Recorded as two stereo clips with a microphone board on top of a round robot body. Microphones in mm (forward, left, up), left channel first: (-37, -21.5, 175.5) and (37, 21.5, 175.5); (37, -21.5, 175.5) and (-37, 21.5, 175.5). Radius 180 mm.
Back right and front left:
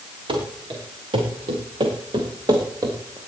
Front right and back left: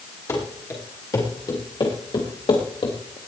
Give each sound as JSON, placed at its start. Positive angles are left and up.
{"t": 0.3, "sound": "running footsteps", "azimuth_deg": 25, "distance_m": 6.0}